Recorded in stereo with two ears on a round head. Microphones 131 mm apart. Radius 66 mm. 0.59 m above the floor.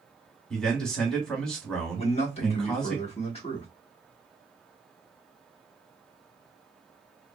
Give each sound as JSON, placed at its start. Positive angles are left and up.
{"t": 0.5, "sound": "a man speaking", "side_deg": 5, "distance_m": 1.3}
{"t": 1.9, "sound": "a man speaking", "side_deg": 45, "distance_m": 1.1}